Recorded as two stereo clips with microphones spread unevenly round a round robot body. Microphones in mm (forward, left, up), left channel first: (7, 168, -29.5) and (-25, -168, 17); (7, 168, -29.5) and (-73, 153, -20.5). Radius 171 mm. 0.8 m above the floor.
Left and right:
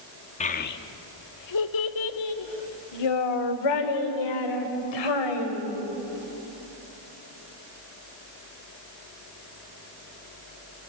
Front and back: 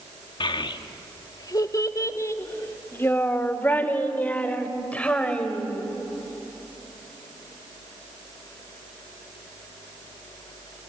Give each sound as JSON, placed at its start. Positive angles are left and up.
{"t": 0.4, "sound": "a child speaking", "azimuth_deg": 15, "distance_m": 0.9}